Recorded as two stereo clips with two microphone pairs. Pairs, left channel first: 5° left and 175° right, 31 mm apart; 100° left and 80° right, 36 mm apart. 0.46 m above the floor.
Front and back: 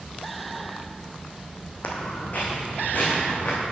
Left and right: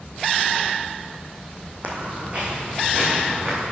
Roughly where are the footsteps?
Ahead right.